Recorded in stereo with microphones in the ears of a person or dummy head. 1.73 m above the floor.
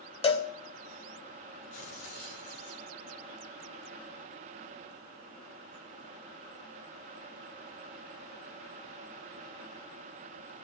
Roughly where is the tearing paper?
Left.